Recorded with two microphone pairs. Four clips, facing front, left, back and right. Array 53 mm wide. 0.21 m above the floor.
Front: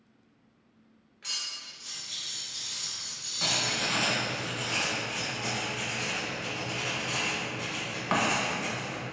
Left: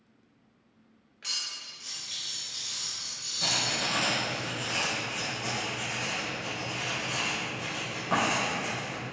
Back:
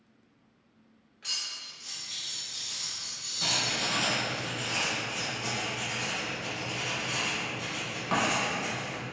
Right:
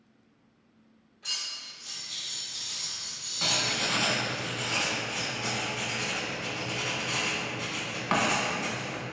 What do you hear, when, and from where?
1.2 s cutlery clinking: 85° left, 1.7 m
3.4 s writing: 50° right, 0.6 m